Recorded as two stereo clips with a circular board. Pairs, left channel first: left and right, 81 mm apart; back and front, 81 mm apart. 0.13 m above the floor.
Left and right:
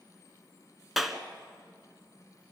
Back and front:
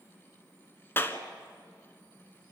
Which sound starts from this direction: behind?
A clap, at 1.0 s.